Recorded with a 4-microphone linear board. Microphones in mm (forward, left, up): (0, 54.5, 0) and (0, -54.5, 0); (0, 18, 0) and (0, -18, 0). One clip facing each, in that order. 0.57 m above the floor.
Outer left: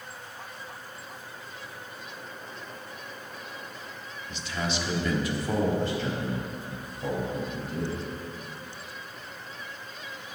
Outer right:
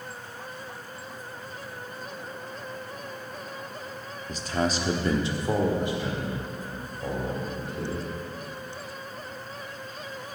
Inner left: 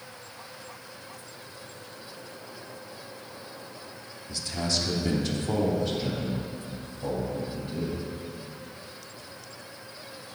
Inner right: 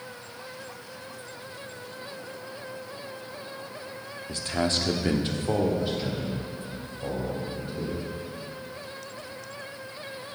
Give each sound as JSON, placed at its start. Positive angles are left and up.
{"t": 4.3, "sound": "a man speaking", "side_deg": -40, "distance_m": 1.1}